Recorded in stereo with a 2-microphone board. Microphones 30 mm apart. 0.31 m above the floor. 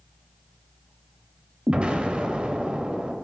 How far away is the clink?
I don't hear a clink.